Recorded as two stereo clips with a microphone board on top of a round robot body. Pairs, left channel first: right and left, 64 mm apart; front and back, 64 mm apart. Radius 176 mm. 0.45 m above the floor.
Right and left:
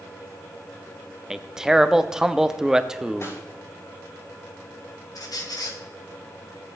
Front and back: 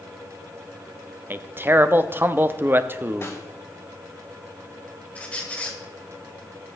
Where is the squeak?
70° right, 2 m.